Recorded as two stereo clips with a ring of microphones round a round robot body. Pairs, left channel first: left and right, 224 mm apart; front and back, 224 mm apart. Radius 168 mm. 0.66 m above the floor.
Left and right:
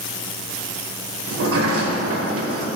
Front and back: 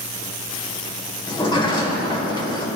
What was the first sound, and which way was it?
A sliding door, 70° right.